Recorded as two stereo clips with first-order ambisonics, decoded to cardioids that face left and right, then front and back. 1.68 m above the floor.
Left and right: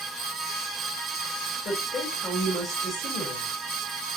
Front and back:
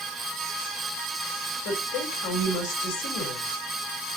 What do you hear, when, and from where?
1.6 s a woman speaking: 25° left, 4 m